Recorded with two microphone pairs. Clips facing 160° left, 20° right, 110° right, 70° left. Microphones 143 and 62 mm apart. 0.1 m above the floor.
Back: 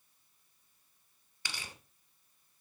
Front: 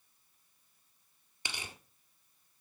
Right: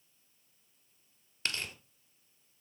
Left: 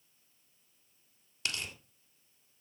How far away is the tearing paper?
About 1.8 m.